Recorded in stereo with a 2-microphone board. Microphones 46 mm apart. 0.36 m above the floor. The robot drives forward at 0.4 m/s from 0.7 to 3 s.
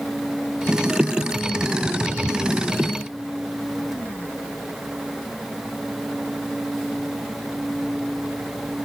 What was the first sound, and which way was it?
Only background noise.